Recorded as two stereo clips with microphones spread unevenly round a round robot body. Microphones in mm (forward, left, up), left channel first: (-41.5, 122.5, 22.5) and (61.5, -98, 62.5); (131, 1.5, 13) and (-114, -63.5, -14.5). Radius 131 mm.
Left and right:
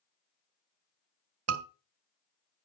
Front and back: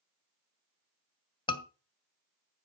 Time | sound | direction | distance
1.5 | a scream | 60° right | 2 m